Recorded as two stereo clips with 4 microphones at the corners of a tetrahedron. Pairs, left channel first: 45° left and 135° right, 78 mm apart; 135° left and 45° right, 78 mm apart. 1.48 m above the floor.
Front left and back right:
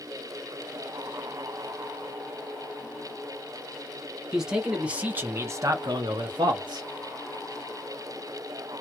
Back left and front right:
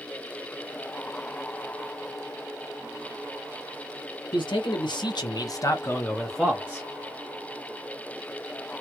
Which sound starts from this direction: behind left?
A man speaking, at 4.3 s.